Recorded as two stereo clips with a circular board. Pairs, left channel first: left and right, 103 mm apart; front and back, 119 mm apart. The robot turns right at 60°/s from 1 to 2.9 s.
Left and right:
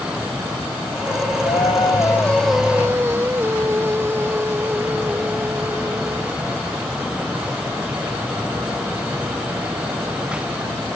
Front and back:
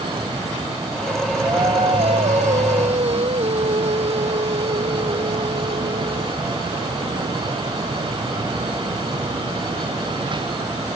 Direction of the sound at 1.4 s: 115° left.